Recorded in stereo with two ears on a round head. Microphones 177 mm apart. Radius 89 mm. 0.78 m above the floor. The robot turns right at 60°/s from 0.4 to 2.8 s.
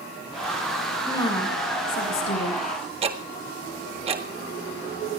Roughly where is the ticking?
Right.